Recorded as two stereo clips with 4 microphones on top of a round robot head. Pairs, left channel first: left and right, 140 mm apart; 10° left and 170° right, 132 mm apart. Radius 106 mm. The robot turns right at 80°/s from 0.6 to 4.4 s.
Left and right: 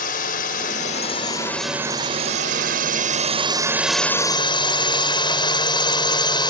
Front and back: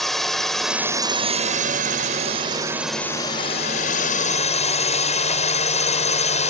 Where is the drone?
95° left; by 6.5 s 35° left.